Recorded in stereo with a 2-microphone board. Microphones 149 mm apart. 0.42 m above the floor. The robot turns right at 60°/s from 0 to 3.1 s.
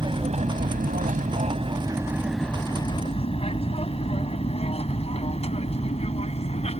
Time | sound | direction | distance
0.0 | an aircraft | 30° right (ahead or behind) | ?